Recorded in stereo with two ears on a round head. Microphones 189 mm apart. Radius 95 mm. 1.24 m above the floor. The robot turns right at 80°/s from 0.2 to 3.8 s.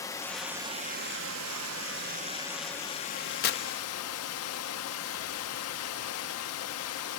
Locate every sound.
0.0 s running water: 165° left, 0.8 m; by 7.2 s 95° left, 0.8 m
3.4 s tearing paper: 45° left (ahead or behind), 0.9 m; by 3.6 s 60° left (ahead or behind), 0.9 m